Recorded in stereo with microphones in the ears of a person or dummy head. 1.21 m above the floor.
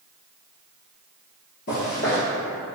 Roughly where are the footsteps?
Left.